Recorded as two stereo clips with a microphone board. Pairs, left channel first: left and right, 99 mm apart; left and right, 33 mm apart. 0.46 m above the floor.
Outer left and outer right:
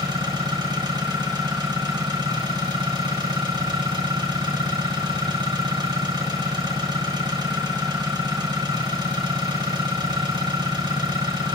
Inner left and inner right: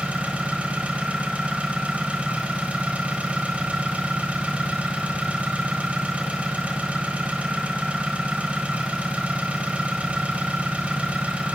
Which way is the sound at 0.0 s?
45° right (ahead or behind).